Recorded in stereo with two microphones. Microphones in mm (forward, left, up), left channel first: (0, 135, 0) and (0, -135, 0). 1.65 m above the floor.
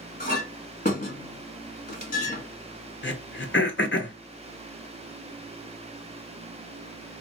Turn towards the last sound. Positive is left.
turn(degrees=45)  # may be behind; listen again after turning